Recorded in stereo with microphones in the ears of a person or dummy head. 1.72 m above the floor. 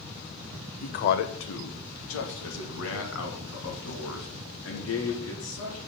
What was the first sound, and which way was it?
A man speaking, 45° left (ahead or behind).